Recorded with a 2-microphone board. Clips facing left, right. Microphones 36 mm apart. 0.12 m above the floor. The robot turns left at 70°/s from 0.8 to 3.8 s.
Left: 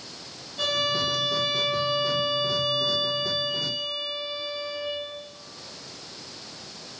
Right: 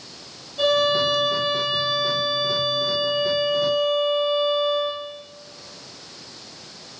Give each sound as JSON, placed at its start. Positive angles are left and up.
{"t": 0.6, "sound": "a violin", "azimuth_deg": -15, "distance_m": 4.0}